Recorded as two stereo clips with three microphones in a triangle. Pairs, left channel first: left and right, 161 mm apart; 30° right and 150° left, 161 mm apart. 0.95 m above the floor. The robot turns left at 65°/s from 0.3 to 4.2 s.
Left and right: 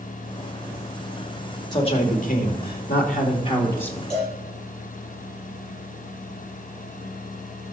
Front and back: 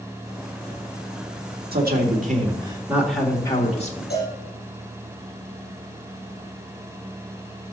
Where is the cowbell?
15° right, 5.5 m; by 4.3 s 25° right, 5.5 m.